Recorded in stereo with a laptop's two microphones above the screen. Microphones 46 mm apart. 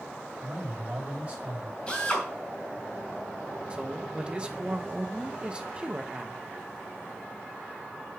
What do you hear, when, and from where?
0.4 s a man speaking: 25° right (ahead or behind), 2.5 m
1.9 s a drill: 25° left (ahead or behind), 2.5 m
3.7 s a man speaking: 20° right (ahead or behind), 0.8 m